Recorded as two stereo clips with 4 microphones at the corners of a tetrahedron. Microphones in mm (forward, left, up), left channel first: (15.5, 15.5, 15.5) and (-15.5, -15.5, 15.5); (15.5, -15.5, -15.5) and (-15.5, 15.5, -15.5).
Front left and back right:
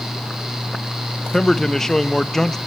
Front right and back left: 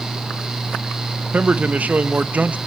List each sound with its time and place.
1.3 s a man speaking: 120° left, 0.6 m